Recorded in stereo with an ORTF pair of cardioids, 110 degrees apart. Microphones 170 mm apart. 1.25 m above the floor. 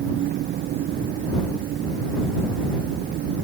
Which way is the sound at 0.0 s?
70° right.